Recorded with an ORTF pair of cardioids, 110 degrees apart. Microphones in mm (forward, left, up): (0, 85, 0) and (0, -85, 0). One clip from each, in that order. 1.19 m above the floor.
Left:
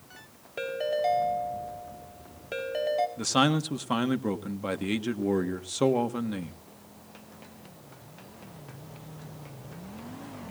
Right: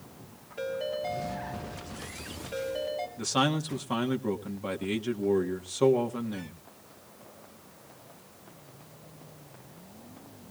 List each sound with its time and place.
0.6 s a ringtone: 65° left, 4 m
3.2 s a man speaking: 25° left, 1.6 m